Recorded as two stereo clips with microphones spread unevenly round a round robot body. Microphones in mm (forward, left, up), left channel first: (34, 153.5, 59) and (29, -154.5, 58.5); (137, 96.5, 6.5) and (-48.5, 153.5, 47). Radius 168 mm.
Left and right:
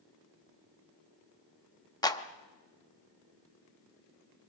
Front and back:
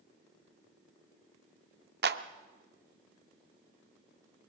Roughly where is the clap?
Behind.